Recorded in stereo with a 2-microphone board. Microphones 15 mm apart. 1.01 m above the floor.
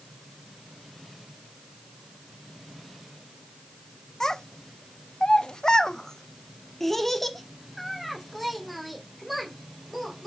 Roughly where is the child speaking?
Left.